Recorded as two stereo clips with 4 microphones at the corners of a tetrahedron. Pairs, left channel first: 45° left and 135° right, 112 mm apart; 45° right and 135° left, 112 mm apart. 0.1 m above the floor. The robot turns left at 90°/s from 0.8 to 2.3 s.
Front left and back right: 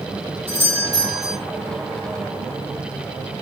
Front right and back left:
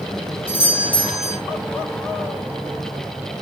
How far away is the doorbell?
About 4.5 m.